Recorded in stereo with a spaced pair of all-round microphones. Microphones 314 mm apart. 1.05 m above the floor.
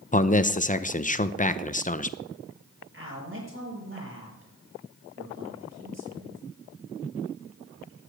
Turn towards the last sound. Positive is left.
turn(degrees=-40)  # may be behind; listen again after turning